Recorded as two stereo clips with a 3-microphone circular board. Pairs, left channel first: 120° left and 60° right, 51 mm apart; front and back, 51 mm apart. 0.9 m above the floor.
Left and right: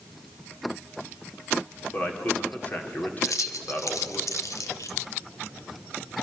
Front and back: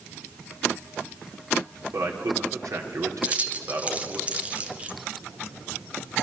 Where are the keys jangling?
115° left, 1.8 m.